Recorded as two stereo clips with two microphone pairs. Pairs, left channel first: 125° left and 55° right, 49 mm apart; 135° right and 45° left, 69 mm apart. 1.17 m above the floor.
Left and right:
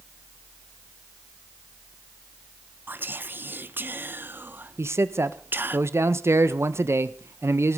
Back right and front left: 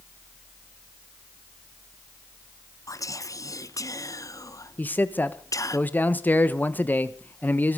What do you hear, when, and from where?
2.9 s whispering: 100° right, 0.9 m
4.8 s a man speaking: 70° right, 1.1 m